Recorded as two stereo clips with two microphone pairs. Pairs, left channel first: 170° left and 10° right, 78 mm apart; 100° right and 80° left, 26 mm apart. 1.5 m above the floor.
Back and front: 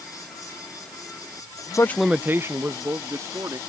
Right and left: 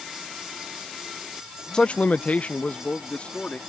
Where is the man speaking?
160° right; by 3.6 s 55° right.